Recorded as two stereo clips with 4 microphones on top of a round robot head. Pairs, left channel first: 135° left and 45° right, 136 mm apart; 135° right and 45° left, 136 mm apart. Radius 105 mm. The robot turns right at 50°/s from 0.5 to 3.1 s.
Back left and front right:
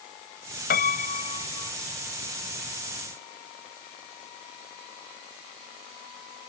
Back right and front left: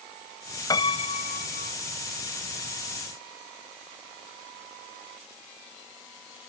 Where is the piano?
160° left; by 1.8 s 150° right.